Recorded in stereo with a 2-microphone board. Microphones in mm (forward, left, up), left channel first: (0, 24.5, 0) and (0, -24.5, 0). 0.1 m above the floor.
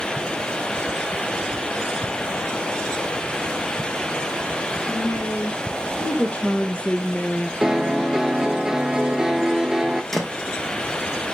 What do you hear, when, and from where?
4.9 s a woman speaking: 30° left (ahead or behind), 4.5 m; by 7.5 s 15° left (ahead or behind), 1.6 m
7.6 s a piano: 15° right (ahead or behind), 0.7 m
10.1 s a thud: 5° left (ahead or behind), 1.6 m